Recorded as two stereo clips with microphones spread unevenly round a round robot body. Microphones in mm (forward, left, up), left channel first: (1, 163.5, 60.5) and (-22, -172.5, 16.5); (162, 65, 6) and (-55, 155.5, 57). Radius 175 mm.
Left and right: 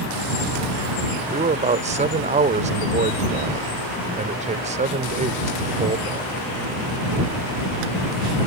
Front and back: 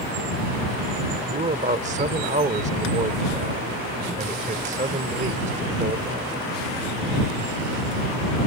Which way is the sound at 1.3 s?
140° right.